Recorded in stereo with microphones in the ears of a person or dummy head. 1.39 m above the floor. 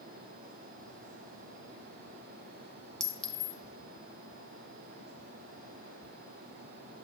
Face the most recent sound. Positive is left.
turn(degrees=10)  # may be behind; listen again after turning